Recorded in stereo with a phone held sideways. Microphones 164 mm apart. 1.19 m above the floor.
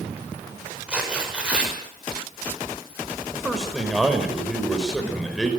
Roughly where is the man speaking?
Centre.